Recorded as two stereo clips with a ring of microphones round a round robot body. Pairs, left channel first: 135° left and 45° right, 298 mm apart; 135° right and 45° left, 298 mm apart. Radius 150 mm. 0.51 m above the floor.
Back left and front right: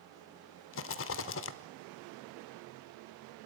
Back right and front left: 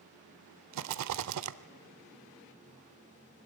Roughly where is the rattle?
Left.